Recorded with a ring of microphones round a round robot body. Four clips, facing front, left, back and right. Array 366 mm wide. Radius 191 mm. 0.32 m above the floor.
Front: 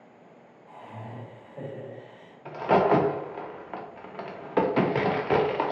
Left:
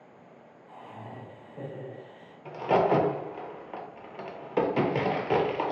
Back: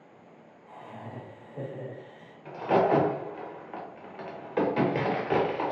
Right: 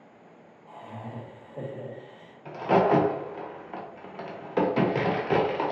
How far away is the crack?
About 0.8 m.